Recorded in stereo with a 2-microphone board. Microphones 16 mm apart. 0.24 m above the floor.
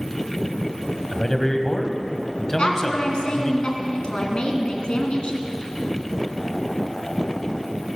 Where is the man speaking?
25° left (ahead or behind), 1.3 m.